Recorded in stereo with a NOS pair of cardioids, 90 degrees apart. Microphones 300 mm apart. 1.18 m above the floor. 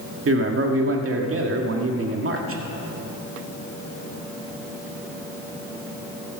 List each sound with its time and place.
0.2 s a man speaking: 40° right, 2 m